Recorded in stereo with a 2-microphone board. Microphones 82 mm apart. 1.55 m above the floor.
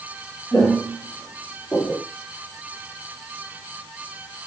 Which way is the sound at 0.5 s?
15° left (ahead or behind).